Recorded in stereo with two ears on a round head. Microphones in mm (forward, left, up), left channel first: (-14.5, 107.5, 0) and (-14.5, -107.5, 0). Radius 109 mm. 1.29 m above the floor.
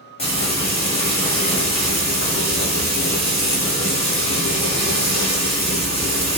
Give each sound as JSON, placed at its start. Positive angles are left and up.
{"t": 0.2, "sound": "frying", "side_deg": 25, "distance_m": 1.8}